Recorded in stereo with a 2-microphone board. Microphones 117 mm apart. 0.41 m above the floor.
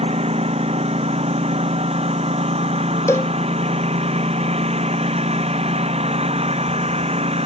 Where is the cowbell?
25° left (ahead or behind).